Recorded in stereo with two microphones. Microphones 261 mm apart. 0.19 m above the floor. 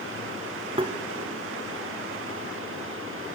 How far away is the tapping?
About 1.1 m.